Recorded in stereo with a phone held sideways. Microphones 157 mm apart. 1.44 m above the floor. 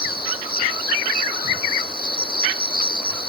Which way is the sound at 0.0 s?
70° left (ahead or behind).